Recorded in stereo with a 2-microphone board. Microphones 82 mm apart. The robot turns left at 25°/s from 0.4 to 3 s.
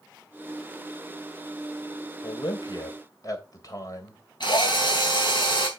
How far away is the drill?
About 4.5 m.